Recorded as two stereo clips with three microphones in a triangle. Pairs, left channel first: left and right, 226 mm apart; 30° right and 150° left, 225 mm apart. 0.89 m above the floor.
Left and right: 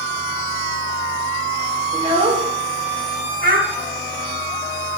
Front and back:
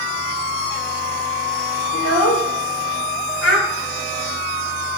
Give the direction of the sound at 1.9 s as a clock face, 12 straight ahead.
1 o'clock.